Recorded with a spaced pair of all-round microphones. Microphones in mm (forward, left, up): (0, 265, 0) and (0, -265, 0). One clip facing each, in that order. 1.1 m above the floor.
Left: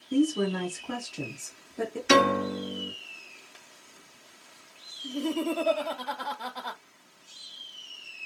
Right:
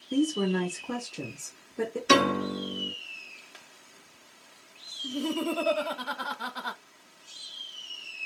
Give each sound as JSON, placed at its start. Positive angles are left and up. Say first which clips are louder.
{"t": 0.1, "sound": "a woman speaking", "louder": "left 1 dB", "side_deg": 10, "distance_m": 0.7}
{"t": 2.1, "sound": "a piano", "louder": "left 2 dB", "side_deg": 10, "distance_m": 1.1}
{"t": 5.0, "sound": "laughter", "louder": "left 1 dB", "side_deg": -35, "distance_m": 0.5}